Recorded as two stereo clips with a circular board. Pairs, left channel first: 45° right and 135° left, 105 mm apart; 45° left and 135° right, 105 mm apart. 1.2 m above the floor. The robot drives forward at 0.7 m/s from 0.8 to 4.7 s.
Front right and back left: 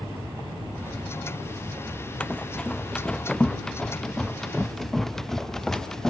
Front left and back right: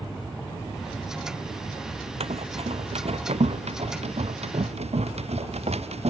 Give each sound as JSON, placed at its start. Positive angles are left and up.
{"t": 2.2, "sound": "running footsteps", "azimuth_deg": -125}